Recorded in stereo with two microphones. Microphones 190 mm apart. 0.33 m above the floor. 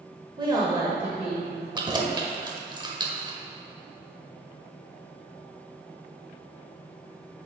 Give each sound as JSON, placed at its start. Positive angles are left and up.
{"t": 0.4, "sound": "a woman speaking", "side_deg": -25, "distance_m": 1.0}
{"t": 1.8, "sound": "keys jangling", "side_deg": -25, "distance_m": 0.8}